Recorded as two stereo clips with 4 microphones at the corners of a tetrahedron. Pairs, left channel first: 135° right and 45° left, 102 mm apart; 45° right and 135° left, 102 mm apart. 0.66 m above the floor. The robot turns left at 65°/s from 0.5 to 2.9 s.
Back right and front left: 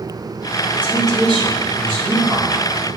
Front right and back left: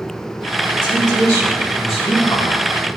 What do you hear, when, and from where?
0.7 s a woman speaking: 120° left, 4.5 m; by 2.7 s 10° right, 4.5 m